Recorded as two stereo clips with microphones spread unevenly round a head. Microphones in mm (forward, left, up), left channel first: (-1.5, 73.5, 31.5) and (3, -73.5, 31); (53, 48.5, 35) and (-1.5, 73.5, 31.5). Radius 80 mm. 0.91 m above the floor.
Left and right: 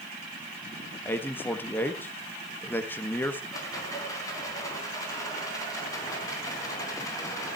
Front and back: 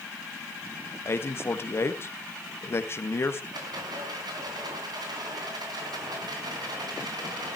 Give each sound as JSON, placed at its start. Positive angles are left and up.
{"t": 1.1, "sound": "a man speaking", "azimuth_deg": 15, "distance_m": 1.6}
{"t": 3.5, "sound": "a rattle", "azimuth_deg": 160, "distance_m": 3.5}